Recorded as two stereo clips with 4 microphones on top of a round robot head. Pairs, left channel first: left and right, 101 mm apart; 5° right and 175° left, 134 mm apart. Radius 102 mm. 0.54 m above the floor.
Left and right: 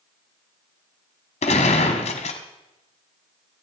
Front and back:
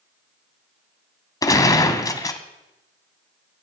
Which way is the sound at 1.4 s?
60° left.